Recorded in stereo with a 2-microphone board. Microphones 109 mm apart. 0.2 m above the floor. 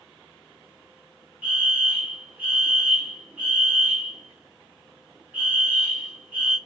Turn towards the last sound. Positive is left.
turn(degrees=-15)  # may be behind; listen again after turning